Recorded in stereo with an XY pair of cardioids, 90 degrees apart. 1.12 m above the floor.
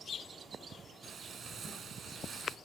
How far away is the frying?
About 3 m.